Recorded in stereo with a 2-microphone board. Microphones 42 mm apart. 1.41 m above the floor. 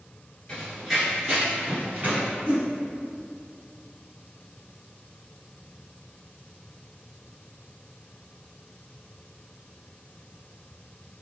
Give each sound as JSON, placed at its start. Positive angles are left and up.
{"t": 0.5, "sound": "running footsteps", "side_deg": 15, "distance_m": 1.4}
{"t": 2.5, "sound": "a whoosh", "side_deg": -35, "distance_m": 1.6}